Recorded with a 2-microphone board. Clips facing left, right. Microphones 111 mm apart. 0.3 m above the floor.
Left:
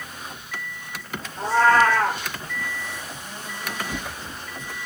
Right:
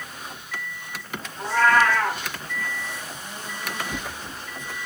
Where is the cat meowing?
35° left (ahead or behind), 5 m.